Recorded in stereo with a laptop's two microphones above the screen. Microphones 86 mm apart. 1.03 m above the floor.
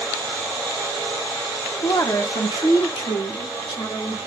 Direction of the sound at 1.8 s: 30° left (ahead or behind).